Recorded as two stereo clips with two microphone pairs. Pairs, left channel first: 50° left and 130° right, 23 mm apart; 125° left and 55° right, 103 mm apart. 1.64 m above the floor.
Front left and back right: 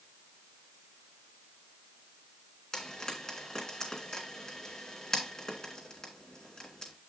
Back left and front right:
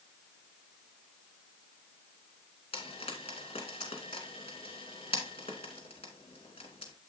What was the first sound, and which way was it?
Frying, 110° left.